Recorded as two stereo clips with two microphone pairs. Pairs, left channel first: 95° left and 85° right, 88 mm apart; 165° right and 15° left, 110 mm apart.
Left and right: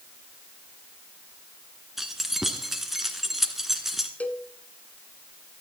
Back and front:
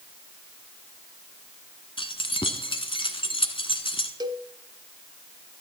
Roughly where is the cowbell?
Ahead left.